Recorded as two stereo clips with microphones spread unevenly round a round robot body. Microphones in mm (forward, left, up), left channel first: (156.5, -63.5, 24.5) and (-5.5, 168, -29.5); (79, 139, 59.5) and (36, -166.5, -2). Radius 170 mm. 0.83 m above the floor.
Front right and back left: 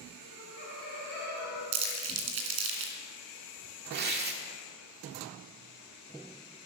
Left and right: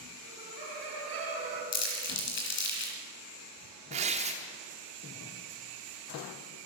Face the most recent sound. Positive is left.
turn(degrees=-170)